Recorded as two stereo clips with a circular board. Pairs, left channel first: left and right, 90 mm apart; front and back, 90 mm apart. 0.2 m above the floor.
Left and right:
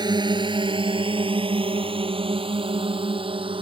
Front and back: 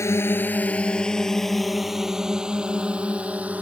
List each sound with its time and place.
0.0 s a drone: 55° right; by 3.6 s 105° right